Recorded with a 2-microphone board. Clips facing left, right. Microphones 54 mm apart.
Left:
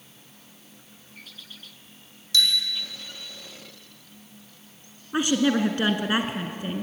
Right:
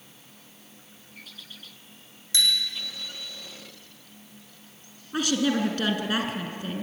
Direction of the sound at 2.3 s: 25° right (ahead or behind).